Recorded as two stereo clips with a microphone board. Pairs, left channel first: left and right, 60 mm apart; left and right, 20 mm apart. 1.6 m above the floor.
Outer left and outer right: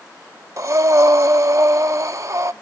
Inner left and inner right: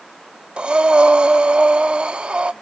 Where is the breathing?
55° right (ahead or behind), 0.6 m.